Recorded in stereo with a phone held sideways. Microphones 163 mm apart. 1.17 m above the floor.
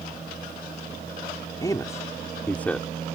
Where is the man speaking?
20° left (ahead or behind); by 2.9 s 5° left (ahead or behind).